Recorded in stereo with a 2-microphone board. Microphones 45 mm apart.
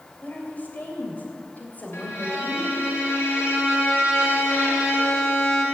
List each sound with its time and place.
0.2 s a woman speaking: 40° left (ahead or behind), 3 m
1.9 s a violin: 75° left (ahead or behind), 3 m